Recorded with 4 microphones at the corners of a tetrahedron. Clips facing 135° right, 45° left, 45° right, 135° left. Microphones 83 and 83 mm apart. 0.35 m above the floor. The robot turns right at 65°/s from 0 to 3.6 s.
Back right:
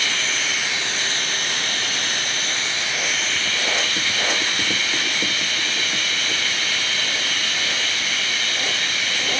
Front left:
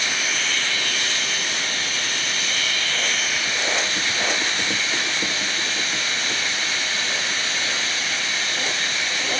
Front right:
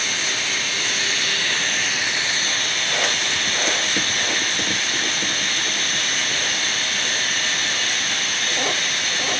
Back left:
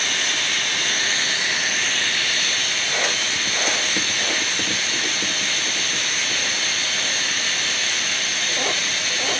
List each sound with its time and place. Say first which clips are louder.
0.0 s running water: even, back left 1 dB; 105° left, 0.9 m; by 9.4 s 20° right, 0.9 m